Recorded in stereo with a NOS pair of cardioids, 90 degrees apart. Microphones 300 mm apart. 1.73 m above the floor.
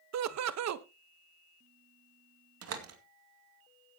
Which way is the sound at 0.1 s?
60° right.